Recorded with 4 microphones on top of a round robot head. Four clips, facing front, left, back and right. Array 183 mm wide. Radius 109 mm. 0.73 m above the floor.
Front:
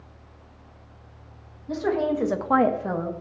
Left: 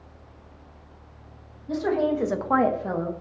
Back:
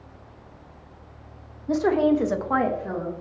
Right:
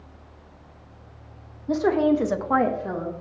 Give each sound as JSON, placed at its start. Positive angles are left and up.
{"t": 1.7, "sound": "a woman speaking", "azimuth_deg": -135, "distance_m": 1.2}